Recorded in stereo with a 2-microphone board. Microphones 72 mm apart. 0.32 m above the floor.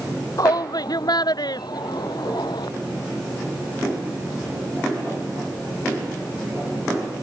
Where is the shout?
60° left (ahead or behind); by 2.7 s 75° left (ahead or behind).